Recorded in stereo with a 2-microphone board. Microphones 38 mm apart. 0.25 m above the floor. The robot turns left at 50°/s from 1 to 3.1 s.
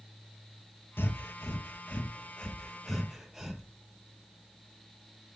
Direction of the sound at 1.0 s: 80° left.